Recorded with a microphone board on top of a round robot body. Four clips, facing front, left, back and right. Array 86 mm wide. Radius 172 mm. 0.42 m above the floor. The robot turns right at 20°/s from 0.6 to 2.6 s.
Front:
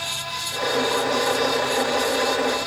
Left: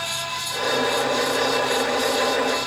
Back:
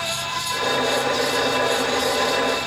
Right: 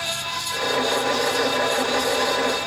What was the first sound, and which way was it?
Only background noise.